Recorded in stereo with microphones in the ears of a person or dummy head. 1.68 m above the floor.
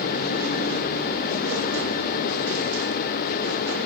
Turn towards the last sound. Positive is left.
No sound to turn to.